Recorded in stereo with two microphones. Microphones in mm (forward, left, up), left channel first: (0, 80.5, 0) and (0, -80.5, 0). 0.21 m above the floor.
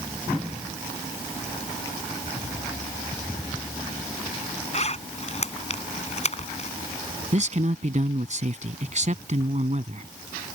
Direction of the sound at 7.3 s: 50° right (ahead or behind).